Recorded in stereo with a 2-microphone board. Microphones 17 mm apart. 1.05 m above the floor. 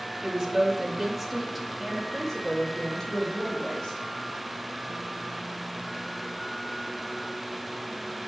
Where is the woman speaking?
40° right (ahead or behind), 1.4 m; by 4.0 s 40° left (ahead or behind), 2 m.